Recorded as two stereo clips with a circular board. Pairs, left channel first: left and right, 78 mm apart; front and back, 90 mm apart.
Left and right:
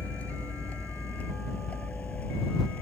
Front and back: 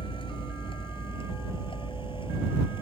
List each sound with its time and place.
0.0 s a vehicle: 20° left